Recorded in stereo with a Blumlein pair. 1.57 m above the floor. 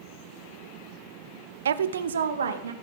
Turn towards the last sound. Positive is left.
turn(degrees=-65)